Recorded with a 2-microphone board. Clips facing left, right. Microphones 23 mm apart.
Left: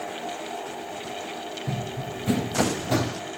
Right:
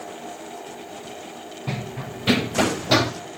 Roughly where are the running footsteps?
Right.